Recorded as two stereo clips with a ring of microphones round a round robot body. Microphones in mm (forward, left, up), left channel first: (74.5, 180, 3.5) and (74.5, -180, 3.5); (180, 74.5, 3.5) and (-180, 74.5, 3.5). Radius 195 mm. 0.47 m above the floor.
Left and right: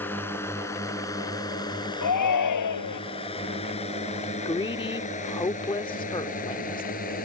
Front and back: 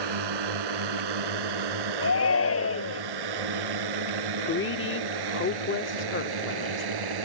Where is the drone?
175° left; by 7.3 s 160° left.